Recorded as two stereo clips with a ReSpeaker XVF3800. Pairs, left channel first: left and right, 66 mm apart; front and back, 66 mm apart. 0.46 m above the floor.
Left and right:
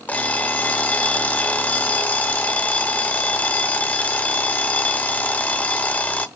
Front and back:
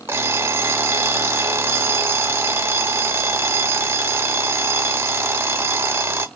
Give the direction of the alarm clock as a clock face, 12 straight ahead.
7 o'clock.